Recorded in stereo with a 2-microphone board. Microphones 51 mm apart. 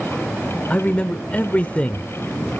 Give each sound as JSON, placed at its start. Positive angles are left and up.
{"t": 0.7, "sound": "a man speaking", "side_deg": 25, "distance_m": 0.9}